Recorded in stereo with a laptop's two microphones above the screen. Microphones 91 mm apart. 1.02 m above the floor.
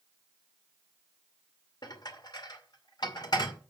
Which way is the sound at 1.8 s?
50° left (ahead or behind).